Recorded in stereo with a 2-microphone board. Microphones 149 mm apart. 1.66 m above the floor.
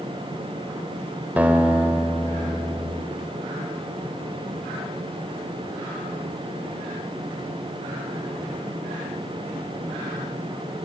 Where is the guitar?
10° right (ahead or behind), 1.8 m.